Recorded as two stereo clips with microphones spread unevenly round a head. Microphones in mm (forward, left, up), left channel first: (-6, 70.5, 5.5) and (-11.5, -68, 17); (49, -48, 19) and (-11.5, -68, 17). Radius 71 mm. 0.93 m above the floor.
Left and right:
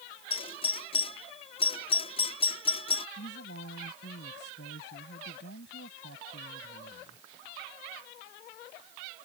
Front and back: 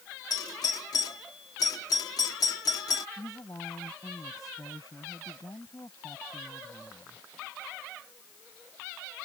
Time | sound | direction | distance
0.3 | a doorbell | 40° left | ?
3.2 | a woman speaking | 80° left | ?